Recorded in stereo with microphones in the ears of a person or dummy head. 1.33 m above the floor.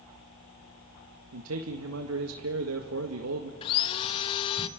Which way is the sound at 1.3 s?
85° right.